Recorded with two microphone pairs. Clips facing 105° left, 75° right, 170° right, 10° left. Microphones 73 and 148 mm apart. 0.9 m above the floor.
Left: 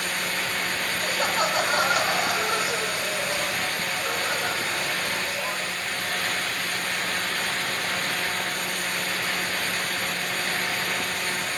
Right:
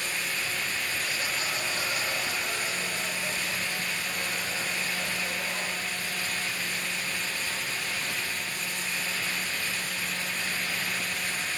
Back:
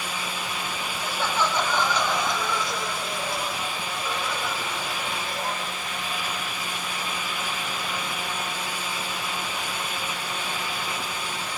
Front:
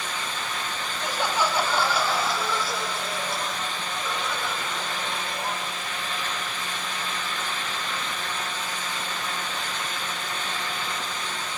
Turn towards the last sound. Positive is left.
turn(degrees=100)